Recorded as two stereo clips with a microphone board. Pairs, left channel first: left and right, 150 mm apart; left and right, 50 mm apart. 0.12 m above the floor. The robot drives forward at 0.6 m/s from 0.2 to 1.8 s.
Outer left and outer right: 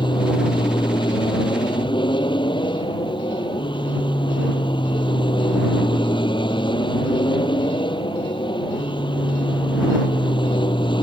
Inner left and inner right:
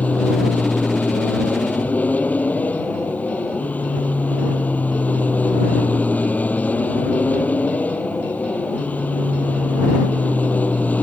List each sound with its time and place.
0.0 s an aircraft: 30° left (ahead or behind)